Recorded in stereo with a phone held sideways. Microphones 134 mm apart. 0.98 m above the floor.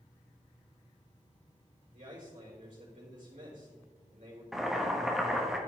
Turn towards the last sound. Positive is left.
turn(degrees=0)  # may be behind; listen again after turning